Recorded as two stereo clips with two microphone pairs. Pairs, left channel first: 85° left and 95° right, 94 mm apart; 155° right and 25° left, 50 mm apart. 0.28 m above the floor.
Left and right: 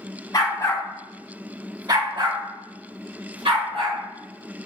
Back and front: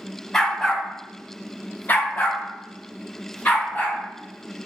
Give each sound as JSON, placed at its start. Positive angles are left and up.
{"t": 0.3, "sound": "a dog barking", "azimuth_deg": 125, "distance_m": 0.9}